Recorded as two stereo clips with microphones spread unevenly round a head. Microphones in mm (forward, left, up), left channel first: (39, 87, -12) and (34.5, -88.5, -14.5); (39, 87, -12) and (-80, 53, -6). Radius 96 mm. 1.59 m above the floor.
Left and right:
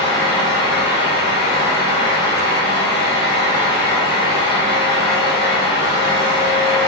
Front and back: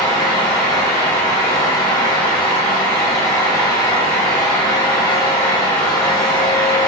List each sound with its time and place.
0.0 s a fan: 75° left, 1.6 m